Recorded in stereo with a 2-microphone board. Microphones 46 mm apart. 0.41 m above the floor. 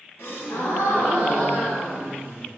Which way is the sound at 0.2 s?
80° left.